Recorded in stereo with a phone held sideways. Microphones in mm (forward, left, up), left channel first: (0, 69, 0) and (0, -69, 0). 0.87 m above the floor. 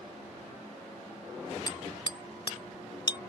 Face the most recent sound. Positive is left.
turn(degrees=35)  # may be behind; listen again after turning